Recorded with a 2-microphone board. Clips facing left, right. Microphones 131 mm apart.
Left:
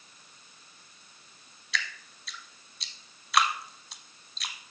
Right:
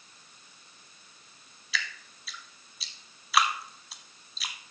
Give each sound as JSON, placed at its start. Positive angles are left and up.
{"t": 1.7, "sound": "dripping", "side_deg": 0, "distance_m": 0.9}